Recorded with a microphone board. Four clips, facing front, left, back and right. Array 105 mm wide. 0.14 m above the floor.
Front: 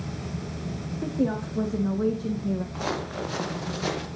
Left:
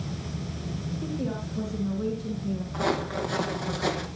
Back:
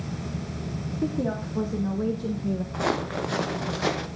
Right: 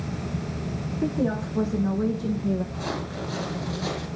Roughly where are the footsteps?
Behind.